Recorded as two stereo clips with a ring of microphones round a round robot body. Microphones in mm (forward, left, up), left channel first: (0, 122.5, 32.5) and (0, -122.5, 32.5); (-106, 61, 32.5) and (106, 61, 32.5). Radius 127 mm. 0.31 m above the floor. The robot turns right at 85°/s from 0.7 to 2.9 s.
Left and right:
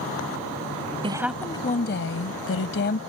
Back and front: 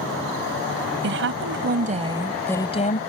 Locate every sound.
1.0 s a woman speaking: 25° right; by 3.0 s 135° left